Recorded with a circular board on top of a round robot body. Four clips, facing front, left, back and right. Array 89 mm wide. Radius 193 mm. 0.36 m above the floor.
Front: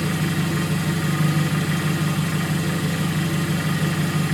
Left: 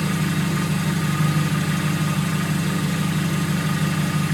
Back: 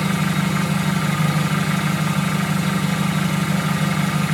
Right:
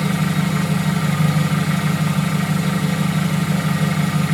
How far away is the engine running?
About 3.5 m.